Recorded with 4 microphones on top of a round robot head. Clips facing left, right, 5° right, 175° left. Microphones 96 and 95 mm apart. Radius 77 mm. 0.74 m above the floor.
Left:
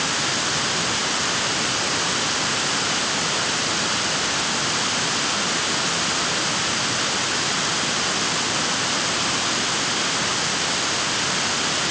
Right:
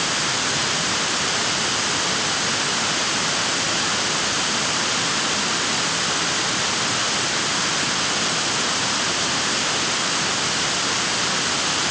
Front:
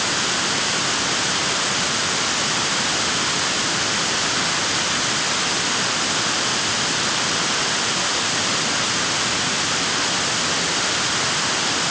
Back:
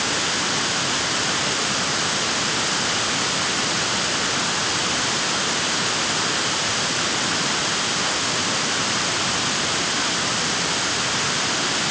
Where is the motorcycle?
I don't hear a motorcycle.